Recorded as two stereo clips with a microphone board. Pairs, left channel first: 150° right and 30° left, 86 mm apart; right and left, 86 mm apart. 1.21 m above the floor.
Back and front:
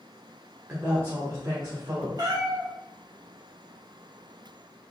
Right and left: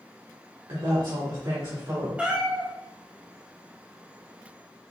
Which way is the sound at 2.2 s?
15° left.